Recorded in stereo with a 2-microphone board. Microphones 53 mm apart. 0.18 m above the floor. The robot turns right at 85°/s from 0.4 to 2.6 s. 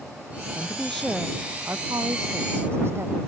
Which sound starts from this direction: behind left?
A woman speaking, at 0.6 s.